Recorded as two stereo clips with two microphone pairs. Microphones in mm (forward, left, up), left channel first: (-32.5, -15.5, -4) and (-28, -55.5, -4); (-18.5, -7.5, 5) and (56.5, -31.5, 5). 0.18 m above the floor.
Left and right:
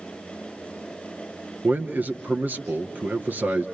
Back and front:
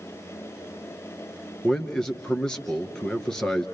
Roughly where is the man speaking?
Behind right.